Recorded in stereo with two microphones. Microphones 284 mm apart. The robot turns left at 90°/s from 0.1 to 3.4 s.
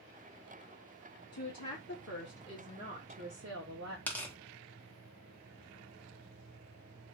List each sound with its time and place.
1.3 s a woman speaking: 125° left, 0.9 m; by 4.0 s 60° right, 0.9 m
4.1 s tearing paper: 5° left (ahead or behind), 1.0 m